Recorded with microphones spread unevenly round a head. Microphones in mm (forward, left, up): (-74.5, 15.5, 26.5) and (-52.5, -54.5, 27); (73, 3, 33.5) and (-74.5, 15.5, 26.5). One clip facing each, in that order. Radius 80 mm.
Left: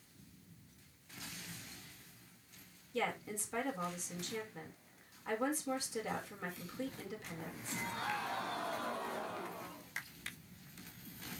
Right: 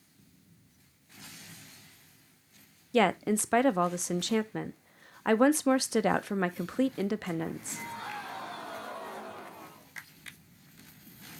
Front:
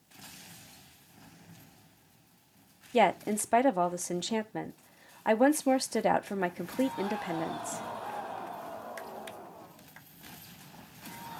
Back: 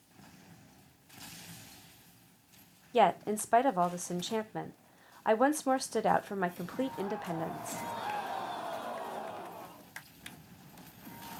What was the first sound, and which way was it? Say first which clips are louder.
A woman speaking: right 13 dB, front 1 dB; 80° right.